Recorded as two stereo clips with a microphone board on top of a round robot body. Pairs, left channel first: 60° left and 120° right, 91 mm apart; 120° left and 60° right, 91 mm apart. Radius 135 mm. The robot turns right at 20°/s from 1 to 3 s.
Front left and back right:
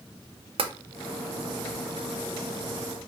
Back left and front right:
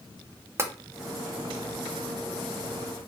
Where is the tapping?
120° right, 0.5 m.